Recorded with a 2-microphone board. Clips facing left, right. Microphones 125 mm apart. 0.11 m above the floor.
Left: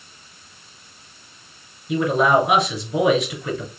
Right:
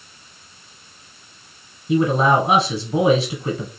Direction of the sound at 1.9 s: 30° right (ahead or behind).